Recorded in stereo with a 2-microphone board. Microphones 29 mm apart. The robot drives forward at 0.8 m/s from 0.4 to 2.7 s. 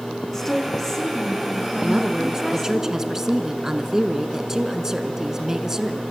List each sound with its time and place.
0.3 s a woman speaking: 10° left (ahead or behind), 5.5 m
1.8 s a woman speaking: 20° right (ahead or behind), 1.2 m; by 6.0 s 15° right (ahead or behind), 1.3 m